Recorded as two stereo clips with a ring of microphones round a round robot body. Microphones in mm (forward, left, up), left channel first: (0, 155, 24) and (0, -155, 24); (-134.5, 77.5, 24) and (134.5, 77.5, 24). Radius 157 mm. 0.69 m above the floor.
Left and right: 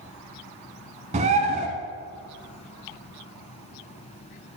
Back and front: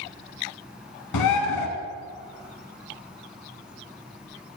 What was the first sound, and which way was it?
A bird, 155° right.